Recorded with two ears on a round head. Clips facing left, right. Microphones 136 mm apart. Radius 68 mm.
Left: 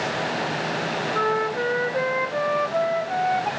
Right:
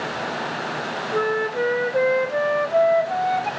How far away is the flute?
About 0.5 m.